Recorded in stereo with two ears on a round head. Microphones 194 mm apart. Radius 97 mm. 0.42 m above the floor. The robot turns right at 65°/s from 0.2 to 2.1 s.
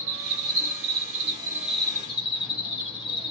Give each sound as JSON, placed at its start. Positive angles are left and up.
{"t": 0.0, "sound": "an insect", "azimuth_deg": -100, "distance_m": 1.3}